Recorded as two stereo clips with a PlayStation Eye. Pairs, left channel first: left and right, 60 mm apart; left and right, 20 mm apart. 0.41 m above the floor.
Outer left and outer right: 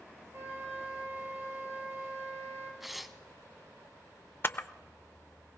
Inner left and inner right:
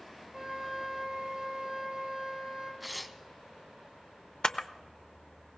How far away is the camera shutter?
About 0.5 m.